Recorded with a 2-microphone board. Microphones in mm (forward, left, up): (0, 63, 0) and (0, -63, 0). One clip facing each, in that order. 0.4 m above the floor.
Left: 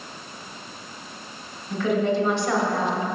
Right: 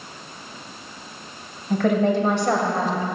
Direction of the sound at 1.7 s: 60° right (ahead or behind).